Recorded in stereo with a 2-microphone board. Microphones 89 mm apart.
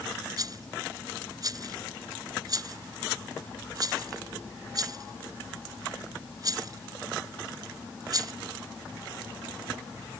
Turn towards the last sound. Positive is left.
turn(degrees=-45)  # may be behind; listen again after turning